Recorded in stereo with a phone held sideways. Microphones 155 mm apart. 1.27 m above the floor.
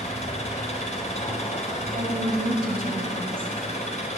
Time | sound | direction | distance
0.0 | an engine running | 45° left (ahead or behind) | 4 m
1.9 | a woman speaking | 65° right (ahead or behind) | 5.5 m